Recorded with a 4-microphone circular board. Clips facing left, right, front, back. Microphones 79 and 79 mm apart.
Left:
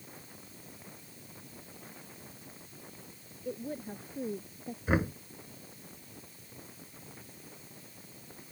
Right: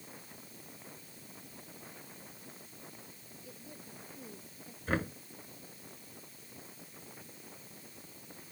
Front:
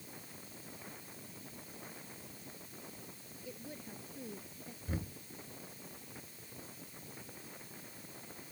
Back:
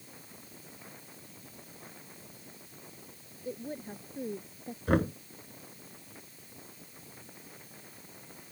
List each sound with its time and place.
3.5 s a woman speaking: 130° left; by 4.8 s 135° left
4.9 s knocking: 170° left